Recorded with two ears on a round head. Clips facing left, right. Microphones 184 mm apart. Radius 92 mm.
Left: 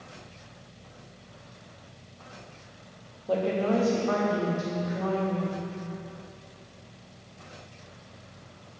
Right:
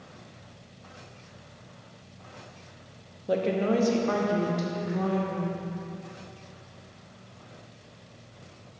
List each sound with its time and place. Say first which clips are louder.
3.3 s a woman speaking: even; 20° right (ahead or behind), 0.8 m; by 5.7 s 55° right (ahead or behind), 2.0 m